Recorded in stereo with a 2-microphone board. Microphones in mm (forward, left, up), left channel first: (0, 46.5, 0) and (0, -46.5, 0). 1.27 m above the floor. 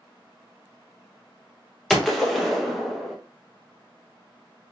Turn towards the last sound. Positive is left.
turn(degrees=5)  # may be behind; listen again after turning